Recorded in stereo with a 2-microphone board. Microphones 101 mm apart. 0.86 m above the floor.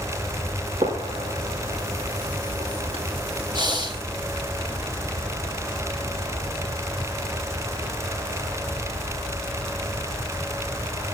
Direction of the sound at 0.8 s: 85° right.